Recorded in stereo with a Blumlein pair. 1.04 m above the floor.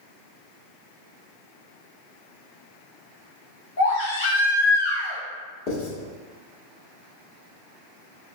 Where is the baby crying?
60° left, 0.8 m.